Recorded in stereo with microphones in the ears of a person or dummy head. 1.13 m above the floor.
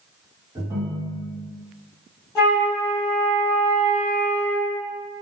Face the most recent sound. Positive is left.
turn(degrees=20)  # may be behind; listen again after turning